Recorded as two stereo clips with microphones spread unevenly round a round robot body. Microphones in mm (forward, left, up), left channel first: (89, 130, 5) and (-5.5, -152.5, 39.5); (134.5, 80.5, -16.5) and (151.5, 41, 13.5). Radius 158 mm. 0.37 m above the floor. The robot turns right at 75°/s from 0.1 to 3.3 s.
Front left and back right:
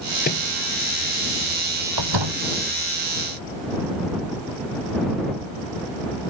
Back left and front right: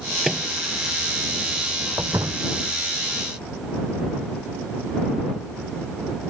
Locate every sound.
0.2 s a microwave: 10° left; by 0.5 s 25° left
2.0 s a door slam: 140° right; by 2.4 s 105° right